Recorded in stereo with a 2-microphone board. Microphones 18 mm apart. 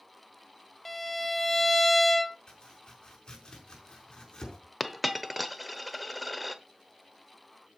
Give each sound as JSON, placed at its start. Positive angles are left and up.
{"t": 0.8, "sound": "a violin", "side_deg": 5, "distance_m": 0.5}
{"t": 2.5, "sound": "chopping", "side_deg": 45, "distance_m": 4.5}
{"t": 4.8, "sound": "a dropped coin", "side_deg": 0, "distance_m": 0.9}